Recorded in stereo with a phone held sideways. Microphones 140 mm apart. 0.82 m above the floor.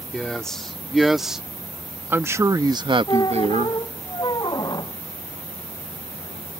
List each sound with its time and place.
0.1 s a man speaking: 5° left (ahead or behind); by 3.8 s 55° right (ahead or behind)
3.1 s a squeak: 30° left (ahead or behind)